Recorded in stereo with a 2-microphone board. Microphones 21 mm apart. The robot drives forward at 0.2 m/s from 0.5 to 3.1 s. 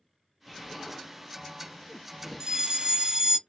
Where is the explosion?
15° left (ahead or behind), 0.9 m; by 3.4 s 10° left (ahead or behind), 1.1 m.